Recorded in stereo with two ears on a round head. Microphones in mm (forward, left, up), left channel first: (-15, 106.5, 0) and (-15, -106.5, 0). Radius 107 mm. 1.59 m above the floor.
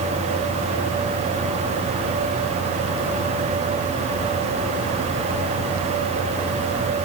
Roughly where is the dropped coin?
No dropped coin in this recording.